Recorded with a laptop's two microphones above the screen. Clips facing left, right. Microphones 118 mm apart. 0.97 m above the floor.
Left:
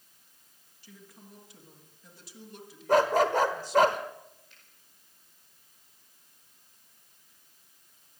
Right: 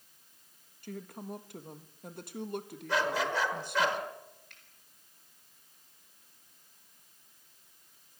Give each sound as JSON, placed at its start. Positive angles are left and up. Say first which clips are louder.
{"t": 0.8, "sound": "a woman speaking", "louder": "right 11 dB", "side_deg": -55, "distance_m": 1.4}
{"t": 2.9, "sound": "a dog barking", "louder": "left 8 dB", "side_deg": 45, "distance_m": 1.5}
{"t": 4.5, "sound": "a finger snap", "louder": "right 1 dB", "side_deg": -70, "distance_m": 4.5}